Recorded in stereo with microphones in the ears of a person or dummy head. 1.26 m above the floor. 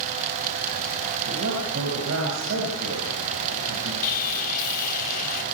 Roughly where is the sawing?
Left.